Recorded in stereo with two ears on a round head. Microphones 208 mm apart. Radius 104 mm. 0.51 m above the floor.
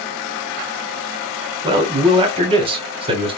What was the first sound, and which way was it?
A man speaking, 25° right (ahead or behind).